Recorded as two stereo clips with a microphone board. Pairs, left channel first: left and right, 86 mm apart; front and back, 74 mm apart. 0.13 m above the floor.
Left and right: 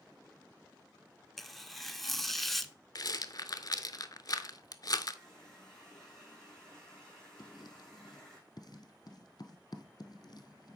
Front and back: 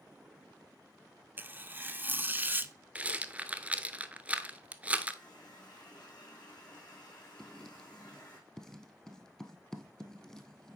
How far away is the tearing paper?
About 0.6 m.